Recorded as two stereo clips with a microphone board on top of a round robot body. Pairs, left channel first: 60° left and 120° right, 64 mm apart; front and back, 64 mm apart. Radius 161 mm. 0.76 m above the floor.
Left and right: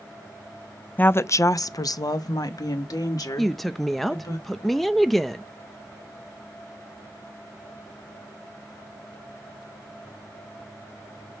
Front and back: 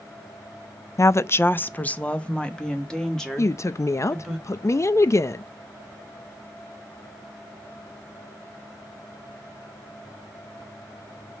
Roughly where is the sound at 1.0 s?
Ahead.